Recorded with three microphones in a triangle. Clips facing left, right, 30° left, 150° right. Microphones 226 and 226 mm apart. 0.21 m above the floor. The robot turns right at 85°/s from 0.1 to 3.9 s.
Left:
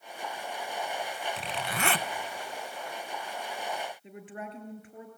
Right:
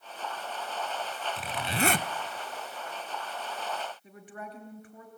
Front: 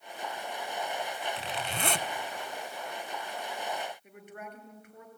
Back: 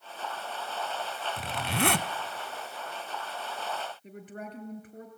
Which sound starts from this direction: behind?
A zipper, at 1.4 s.